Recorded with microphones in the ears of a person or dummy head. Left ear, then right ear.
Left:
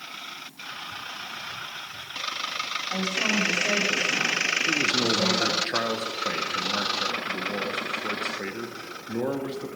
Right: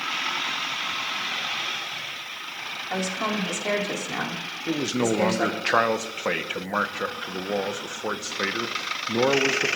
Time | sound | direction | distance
2.9 | a woman speaking | 75° right (ahead or behind) | 3.5 m
4.7 | a man speaking | 30° right (ahead or behind) | 0.9 m